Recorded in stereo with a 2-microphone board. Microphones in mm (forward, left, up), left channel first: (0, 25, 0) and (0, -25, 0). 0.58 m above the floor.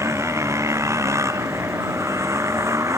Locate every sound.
0.0 s a motorcycle: 80° right; by 3.0 s 90° right